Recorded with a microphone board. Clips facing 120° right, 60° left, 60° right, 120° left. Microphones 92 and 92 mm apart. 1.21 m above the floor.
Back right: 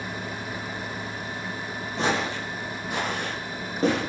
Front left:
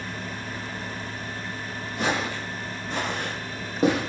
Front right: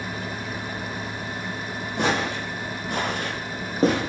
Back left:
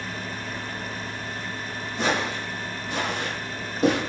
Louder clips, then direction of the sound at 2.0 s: Back right 1 dB, front right 1 dB; 65° right.